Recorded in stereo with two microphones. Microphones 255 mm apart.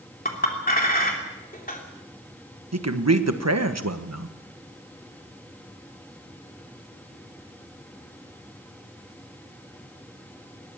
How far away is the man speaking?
About 1.4 m.